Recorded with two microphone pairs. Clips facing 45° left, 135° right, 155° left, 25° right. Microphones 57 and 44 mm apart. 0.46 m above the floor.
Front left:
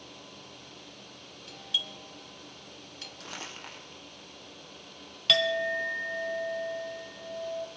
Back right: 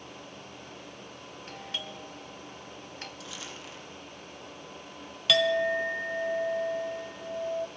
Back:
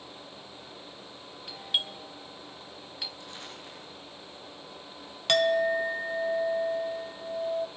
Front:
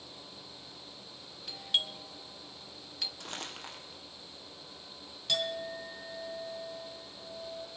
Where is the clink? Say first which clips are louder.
Back right 2 dB, back 11 dB; 140° left, 1.3 m.